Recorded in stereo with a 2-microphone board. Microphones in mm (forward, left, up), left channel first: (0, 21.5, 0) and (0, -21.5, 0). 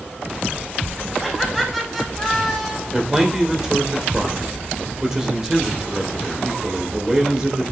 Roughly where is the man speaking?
Centre.